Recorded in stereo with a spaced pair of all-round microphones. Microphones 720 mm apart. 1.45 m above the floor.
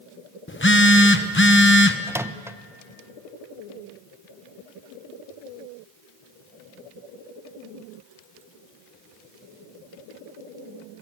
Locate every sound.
0.5 s a phone buzzing: 15° left (ahead or behind), 1.0 m
2.1 s a microwave: 5° right (ahead or behind), 0.5 m